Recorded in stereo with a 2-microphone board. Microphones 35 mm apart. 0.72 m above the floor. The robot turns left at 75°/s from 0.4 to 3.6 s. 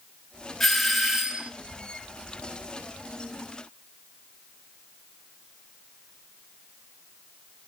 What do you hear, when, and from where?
0.6 s a doorbell: 5° left (ahead or behind), 1.4 m; by 1.5 s 20° right (ahead or behind), 1.4 m